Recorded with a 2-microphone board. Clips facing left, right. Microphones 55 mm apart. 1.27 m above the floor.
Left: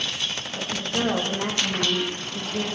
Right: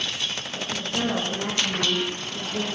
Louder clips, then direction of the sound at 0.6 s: Left 1 dB; 40° left (ahead or behind).